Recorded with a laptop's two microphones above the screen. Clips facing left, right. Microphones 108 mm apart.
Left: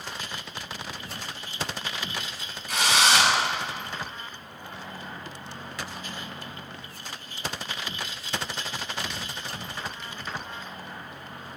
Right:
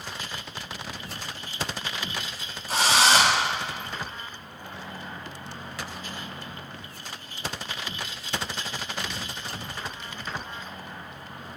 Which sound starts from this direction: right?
A drill, at 2.7 s.